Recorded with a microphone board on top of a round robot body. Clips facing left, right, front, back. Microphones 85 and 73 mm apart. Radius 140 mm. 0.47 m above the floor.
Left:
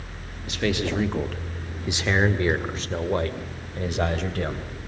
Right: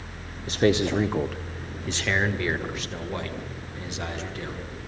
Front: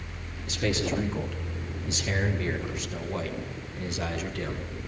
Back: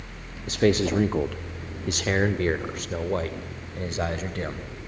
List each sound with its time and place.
0.5 s a man speaking: 140° right, 1.7 m; by 4.7 s 125° left, 3.5 m